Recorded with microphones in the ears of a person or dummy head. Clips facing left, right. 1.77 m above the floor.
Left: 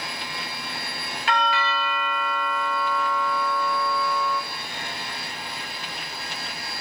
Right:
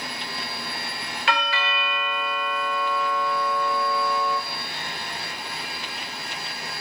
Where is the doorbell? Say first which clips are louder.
Left 3 dB; 55° right (ahead or behind), 0.7 m.